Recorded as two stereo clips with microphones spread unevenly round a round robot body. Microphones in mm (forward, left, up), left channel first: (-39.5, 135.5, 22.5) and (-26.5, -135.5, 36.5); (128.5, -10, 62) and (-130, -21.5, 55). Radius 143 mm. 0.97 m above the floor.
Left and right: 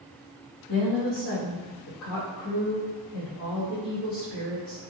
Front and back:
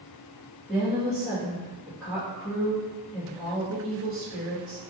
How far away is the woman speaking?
About 2.0 m.